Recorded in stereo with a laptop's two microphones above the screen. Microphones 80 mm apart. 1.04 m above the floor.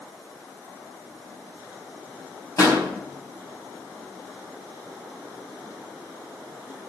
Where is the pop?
45° left (ahead or behind), 4 m.